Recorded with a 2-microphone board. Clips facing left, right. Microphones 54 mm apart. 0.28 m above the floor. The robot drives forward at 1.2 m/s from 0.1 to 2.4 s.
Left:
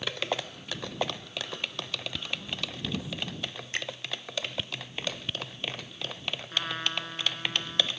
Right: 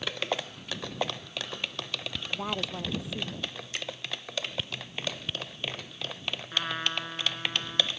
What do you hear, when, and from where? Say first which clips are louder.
2.3 s a woman speaking: right 8 dB; 80° right; by 3.5 s 85° right
3.7 s a finger snap: left 6 dB; 45° left (ahead or behind)
6.5 s a trumpet: right 1 dB; 5° right (ahead or behind)